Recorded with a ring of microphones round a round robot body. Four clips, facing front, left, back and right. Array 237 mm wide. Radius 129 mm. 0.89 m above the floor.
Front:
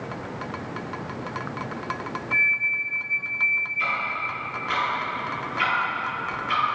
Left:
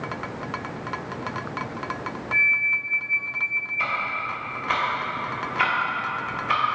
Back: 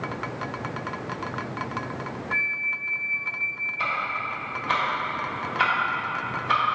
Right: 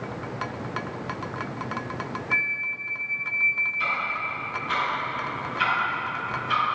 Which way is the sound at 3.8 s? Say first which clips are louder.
Left 2 dB, back 1 dB; 135° left.